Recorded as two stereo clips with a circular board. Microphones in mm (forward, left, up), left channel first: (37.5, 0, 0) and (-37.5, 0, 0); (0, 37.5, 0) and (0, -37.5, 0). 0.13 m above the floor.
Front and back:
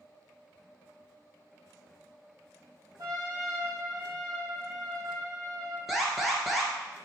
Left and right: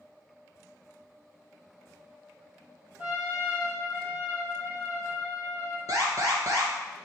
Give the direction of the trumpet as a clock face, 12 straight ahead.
5 o'clock.